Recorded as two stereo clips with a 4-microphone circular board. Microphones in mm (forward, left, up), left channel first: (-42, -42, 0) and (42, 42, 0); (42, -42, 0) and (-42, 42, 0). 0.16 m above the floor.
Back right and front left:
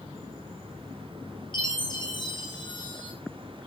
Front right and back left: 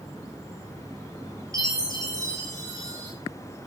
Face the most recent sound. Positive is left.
turn(degrees=-175)